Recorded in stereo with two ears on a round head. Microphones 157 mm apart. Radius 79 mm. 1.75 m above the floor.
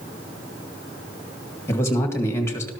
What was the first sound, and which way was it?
A man speaking, 15° left (ahead or behind).